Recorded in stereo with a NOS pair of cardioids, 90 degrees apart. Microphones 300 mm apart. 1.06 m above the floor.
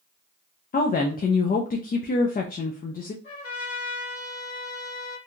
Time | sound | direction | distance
0.7 | a woman speaking | 30° left | 0.5 m
3.2 | a trumpet | 45° left | 1.8 m